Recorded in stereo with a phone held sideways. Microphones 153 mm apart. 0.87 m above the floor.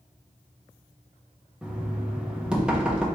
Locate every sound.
1.6 s knocking: 5° right (ahead or behind), 0.8 m